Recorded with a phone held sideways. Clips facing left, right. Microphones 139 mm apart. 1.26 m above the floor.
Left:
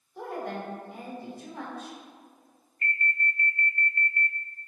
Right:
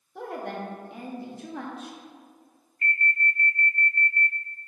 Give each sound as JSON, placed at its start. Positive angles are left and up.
{"t": 0.1, "sound": "a woman speaking", "side_deg": -75, "distance_m": 1.8}
{"t": 2.8, "sound": "an alarm", "side_deg": -35, "distance_m": 0.9}